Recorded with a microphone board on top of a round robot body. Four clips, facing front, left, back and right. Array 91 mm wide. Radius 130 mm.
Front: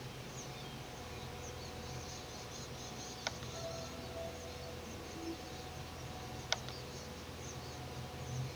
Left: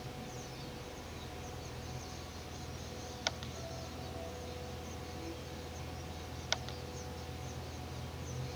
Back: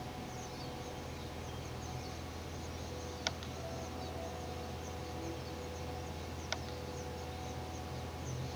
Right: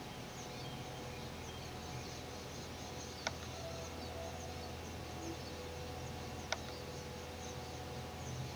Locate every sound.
Only background noise.